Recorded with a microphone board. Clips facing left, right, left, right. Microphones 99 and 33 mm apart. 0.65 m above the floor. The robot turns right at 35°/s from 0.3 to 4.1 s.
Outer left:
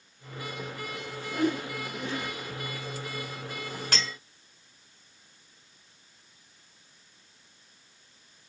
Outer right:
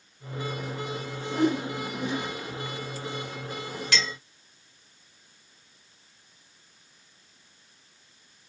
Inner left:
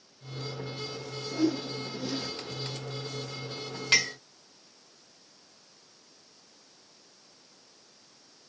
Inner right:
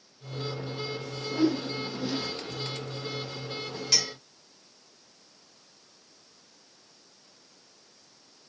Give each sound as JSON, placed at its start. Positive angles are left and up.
{"t": 1.3, "sound": "a whoosh", "side_deg": -20, "distance_m": 0.7}
{"t": 3.9, "sound": "a clink", "side_deg": 40, "distance_m": 0.7}